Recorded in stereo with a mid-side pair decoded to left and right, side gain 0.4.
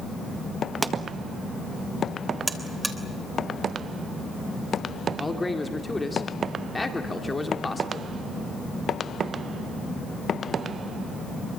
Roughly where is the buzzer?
Ahead.